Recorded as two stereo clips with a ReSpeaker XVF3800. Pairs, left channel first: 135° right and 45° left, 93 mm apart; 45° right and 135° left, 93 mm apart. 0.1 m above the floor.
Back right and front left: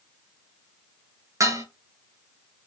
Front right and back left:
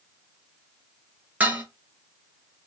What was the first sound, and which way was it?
Dishes clattering, 75° left.